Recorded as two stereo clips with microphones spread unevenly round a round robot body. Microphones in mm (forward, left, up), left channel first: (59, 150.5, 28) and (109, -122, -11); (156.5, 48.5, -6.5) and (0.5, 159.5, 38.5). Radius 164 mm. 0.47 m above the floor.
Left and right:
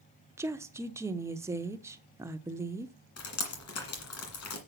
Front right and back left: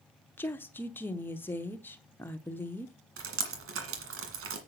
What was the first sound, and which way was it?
A woman speaking, 40° right.